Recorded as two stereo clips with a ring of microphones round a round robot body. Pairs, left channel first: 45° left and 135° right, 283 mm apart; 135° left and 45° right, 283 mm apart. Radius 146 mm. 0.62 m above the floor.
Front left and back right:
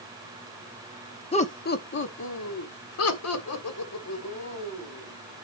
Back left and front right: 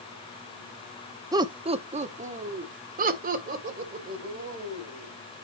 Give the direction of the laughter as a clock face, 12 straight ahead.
12 o'clock.